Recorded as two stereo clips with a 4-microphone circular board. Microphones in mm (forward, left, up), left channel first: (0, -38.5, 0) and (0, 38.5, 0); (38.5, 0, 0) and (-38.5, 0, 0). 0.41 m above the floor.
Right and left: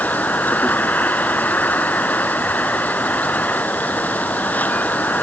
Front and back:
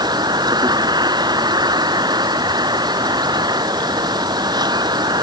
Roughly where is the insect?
Behind.